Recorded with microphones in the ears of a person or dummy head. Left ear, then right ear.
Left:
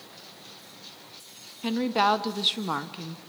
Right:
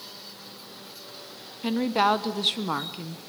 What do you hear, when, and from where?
1.6 s a woman speaking: 5° left (ahead or behind), 1.0 m